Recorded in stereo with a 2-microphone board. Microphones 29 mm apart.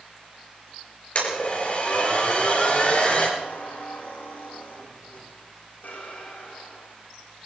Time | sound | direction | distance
1.1 | a blender | 45° left (ahead or behind) | 5.5 m
3.4 | a squeak | 75° left (ahead or behind) | 6.5 m